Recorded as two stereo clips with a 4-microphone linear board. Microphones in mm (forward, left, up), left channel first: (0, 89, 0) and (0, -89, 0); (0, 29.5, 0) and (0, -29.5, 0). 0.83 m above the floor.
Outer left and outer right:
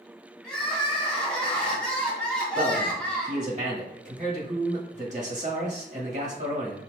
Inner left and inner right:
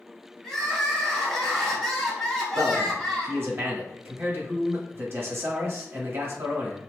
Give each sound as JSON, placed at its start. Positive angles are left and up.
{"t": 0.4, "sound": "crying", "side_deg": 5, "distance_m": 1.2}
{"t": 2.5, "sound": "a man speaking", "side_deg": -40, "distance_m": 1.8}